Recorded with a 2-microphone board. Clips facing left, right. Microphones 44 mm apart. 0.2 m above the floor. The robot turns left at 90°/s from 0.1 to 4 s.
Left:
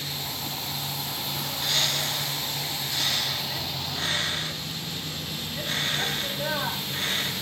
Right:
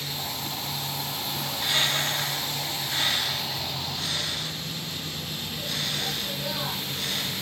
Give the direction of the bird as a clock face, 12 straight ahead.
12 o'clock.